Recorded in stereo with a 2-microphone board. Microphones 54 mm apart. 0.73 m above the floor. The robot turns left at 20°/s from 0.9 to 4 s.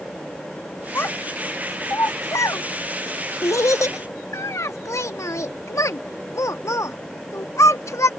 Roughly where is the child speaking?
Left.